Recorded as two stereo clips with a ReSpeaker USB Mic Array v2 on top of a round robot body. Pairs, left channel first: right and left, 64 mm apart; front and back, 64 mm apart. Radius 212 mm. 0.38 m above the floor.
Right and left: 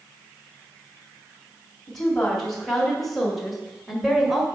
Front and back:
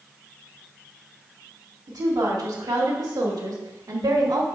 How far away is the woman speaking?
About 3 m.